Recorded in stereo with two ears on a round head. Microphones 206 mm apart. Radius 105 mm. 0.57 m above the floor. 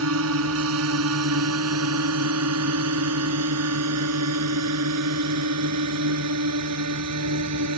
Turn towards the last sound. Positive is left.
turn(degrees=-75)  # may be behind; listen again after turning